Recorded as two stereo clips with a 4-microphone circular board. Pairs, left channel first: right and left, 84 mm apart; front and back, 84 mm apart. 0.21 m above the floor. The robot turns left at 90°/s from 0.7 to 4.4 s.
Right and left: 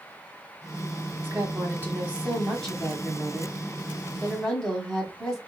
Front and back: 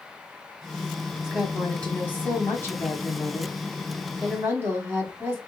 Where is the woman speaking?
115° left, 1.3 m; by 5.4 s 170° right, 1.3 m.